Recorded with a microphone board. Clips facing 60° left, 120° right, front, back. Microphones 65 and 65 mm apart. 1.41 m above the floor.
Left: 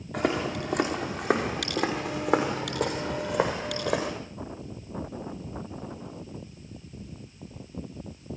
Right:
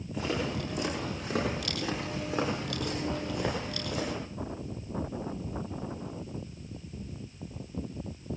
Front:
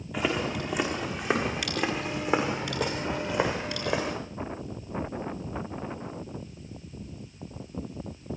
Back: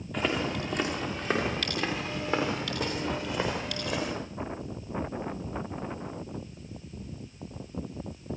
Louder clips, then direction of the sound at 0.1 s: Left 5 dB, front 1 dB; 85° left.